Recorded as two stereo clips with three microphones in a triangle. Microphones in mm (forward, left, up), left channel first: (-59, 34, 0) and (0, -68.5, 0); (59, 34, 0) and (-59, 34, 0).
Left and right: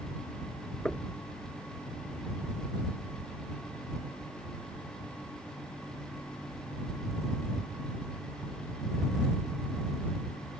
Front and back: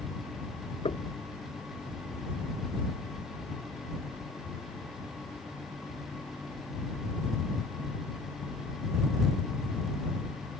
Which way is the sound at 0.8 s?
35° left.